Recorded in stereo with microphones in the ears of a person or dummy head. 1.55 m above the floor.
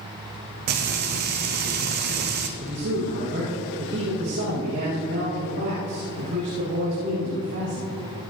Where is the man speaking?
50° right (ahead or behind), 2 m.